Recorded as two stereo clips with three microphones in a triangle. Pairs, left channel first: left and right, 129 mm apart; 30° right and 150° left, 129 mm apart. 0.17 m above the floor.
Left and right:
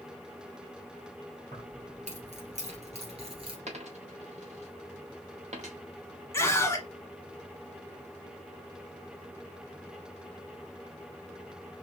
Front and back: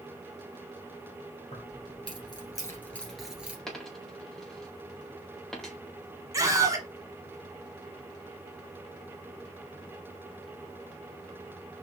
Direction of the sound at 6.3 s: 130° left.